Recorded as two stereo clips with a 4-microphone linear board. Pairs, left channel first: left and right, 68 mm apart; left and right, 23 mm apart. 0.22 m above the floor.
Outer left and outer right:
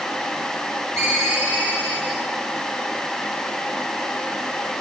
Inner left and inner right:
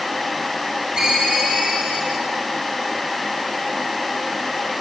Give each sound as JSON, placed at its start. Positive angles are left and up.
{"t": 1.0, "sound": "a ringtone", "side_deg": -45, "distance_m": 9.5}